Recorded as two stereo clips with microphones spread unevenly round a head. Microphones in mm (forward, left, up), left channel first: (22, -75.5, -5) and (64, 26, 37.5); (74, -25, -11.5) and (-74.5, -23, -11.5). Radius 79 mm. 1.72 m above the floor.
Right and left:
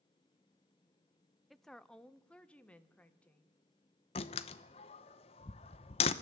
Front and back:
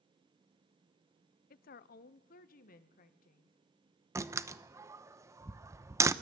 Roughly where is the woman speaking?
Ahead.